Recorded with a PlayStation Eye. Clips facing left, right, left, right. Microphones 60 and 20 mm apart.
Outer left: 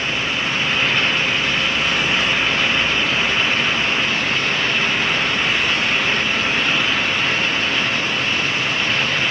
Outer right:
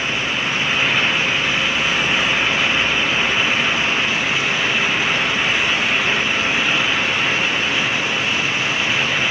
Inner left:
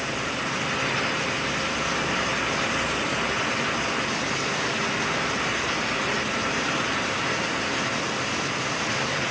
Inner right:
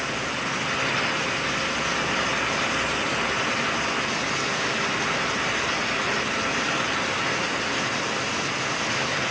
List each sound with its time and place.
Only background noise.